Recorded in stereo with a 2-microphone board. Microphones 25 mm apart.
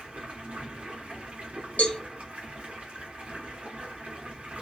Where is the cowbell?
75° left (ahead or behind), 1.0 m.